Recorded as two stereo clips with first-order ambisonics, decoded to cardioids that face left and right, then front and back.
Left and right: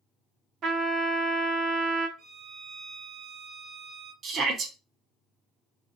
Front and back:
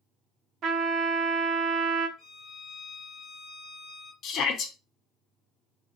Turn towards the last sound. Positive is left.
turn(degrees=-40)